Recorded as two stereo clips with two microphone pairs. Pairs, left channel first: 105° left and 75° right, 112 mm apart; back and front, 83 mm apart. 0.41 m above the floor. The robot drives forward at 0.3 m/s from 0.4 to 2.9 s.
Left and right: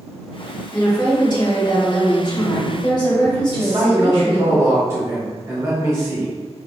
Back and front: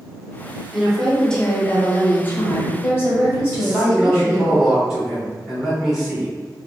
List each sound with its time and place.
0.7 s a woman speaking: 85° left, 1.1 m; by 4.5 s 130° left, 1.3 m
3.5 s a man speaking: 70° right, 1.0 m